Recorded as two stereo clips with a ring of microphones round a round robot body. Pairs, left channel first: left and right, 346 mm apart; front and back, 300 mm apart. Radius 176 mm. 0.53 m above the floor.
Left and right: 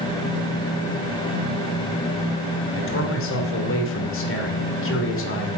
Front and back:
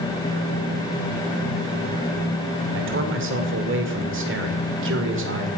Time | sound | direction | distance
2.7 | a man speaking | 140° left | 2.5 m